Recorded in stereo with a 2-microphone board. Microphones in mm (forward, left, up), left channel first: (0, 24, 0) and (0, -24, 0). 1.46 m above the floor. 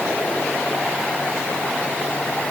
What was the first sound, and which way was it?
Only background noise.